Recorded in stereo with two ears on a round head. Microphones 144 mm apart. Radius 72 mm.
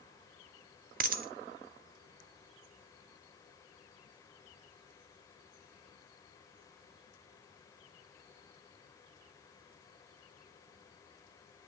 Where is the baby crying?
No baby crying in this recording.